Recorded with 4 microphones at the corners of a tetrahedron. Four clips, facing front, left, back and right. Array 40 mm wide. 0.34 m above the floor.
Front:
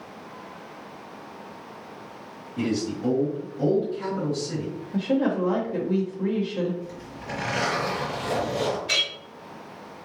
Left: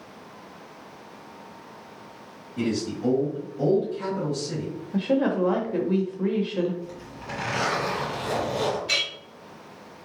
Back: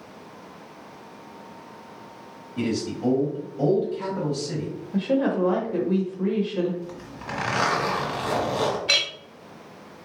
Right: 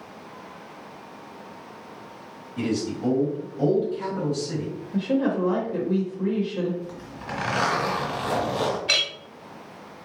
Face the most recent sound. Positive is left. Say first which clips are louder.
# right 5 dB, back 2 dB
turn(degrees=-140)